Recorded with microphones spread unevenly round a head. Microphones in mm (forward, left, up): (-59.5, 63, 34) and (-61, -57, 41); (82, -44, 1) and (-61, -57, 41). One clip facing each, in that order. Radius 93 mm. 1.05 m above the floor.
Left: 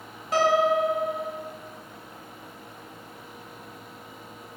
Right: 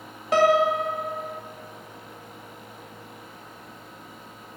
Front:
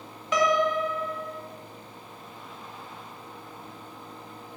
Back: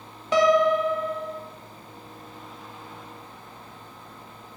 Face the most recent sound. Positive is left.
turn(degrees=-115)